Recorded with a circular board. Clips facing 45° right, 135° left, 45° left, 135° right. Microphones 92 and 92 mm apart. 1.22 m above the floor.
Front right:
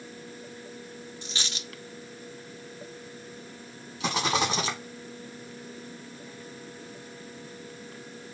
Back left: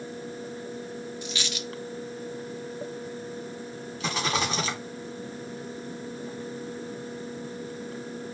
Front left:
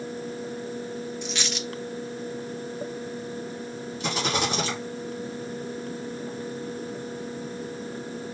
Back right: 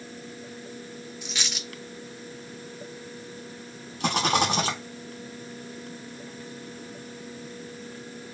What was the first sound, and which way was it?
A dropped coin, 50° right.